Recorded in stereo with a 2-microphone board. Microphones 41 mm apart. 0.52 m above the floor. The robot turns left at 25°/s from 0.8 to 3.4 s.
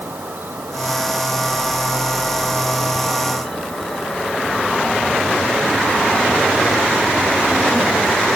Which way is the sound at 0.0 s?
125° right.